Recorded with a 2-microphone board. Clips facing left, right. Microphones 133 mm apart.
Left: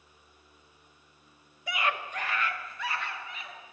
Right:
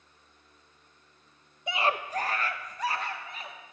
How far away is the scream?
About 0.5 m.